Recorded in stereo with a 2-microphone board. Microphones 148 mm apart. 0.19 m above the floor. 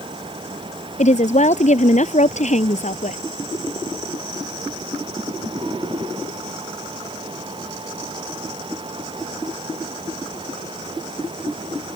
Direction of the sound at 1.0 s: 50° left (ahead or behind).